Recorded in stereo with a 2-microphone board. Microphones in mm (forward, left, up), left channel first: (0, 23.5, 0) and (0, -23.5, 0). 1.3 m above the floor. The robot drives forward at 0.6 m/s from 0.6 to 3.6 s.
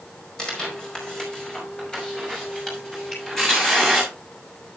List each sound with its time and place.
0.4 s tearing paper: 15° left (ahead or behind), 4.5 m; by 4.1 s 10° left (ahead or behind), 6.5 m
3.1 s a finger snap: centre (ahead or behind), 7 m